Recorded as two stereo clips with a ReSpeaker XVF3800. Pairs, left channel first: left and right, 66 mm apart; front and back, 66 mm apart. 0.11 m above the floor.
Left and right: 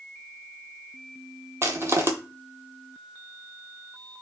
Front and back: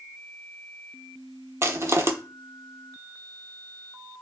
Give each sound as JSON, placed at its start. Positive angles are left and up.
{"t": 1.6, "sound": "crushing", "azimuth_deg": -130, "distance_m": 0.5}